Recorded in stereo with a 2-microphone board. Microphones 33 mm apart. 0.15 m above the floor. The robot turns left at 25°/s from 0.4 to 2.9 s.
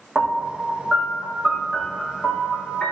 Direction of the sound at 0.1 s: 165° right.